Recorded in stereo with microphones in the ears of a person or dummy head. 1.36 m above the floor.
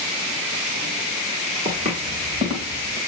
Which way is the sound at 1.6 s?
35° right (ahead or behind).